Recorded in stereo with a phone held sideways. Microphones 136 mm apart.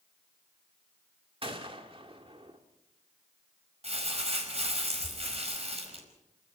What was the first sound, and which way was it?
A gunshot, 40° right (ahead or behind).